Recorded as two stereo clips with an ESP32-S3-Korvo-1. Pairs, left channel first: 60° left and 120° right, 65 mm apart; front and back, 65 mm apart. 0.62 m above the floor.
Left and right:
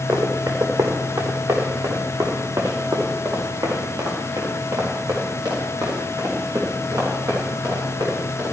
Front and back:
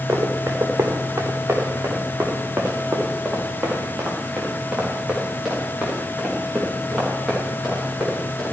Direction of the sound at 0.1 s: 135° right.